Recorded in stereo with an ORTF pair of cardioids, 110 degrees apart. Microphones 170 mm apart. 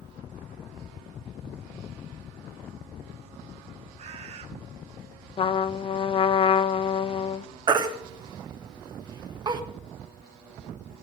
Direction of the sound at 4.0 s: 40° right.